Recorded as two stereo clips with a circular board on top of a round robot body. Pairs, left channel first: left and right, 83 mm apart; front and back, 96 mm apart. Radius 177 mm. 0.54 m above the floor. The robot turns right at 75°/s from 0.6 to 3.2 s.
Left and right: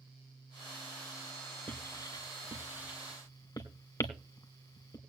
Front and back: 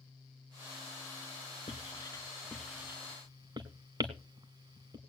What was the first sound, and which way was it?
Writing, 20° left.